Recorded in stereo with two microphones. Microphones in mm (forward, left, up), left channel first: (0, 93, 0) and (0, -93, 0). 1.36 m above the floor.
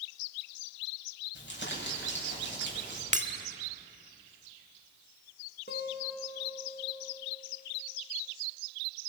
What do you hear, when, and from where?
1.4 s crumpling: 70° left (ahead or behind), 6.5 m
3.1 s breaking glass: 40° right (ahead or behind), 1.2 m
5.7 s a guitar: 60° left (ahead or behind), 2.5 m